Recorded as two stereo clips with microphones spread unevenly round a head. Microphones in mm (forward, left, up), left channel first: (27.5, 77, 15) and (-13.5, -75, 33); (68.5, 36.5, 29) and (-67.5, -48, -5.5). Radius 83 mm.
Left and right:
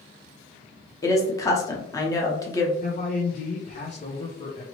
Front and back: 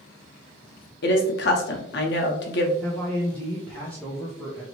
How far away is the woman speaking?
About 0.9 m.